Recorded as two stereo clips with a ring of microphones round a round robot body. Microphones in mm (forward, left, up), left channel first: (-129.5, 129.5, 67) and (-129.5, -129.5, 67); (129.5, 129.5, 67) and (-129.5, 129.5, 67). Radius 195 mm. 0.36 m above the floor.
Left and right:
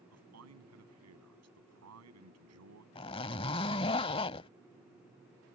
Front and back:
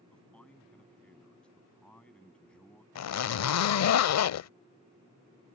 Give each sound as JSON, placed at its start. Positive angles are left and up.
{"t": 0.1, "sound": "a man speaking", "azimuth_deg": -85}
{"t": 3.0, "sound": "a zipper", "azimuth_deg": 15}